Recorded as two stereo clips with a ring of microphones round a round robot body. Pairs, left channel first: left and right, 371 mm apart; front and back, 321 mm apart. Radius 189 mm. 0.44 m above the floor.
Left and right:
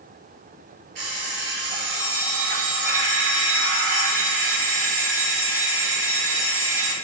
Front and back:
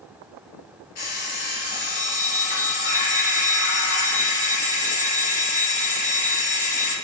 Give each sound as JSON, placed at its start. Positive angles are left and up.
{"t": 0.9, "sound": "an alarm clock", "azimuth_deg": -50, "distance_m": 3.5}